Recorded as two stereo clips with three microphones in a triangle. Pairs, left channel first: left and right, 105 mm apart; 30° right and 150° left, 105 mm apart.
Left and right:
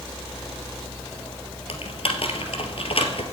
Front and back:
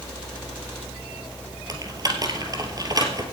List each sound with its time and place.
1.7 s typing on a keyboard: 100° left, 1.9 m